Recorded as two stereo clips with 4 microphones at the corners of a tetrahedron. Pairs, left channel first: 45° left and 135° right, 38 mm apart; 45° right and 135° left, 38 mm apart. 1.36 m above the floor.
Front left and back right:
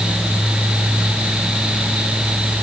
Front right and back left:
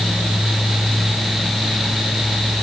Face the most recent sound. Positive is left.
No sound to turn to.